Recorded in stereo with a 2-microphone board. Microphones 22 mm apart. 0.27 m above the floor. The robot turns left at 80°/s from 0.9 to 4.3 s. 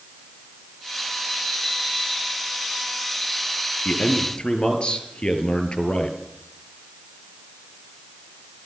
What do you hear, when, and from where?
3.9 s a man speaking: 95° left, 5 m; by 6.2 s 60° left, 5 m